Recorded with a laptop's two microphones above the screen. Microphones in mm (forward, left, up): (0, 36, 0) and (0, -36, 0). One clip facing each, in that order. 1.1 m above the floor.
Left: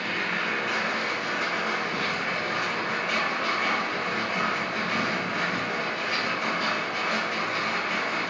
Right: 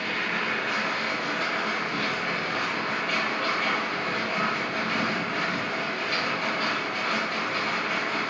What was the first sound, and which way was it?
A machine running, 5° left (ahead or behind).